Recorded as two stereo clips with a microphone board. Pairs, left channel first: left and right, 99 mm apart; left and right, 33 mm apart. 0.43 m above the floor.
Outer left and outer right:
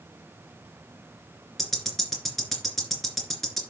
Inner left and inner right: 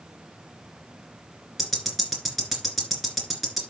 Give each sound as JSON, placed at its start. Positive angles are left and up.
{"t": 1.6, "sound": "ticking", "side_deg": 5, "distance_m": 3.0}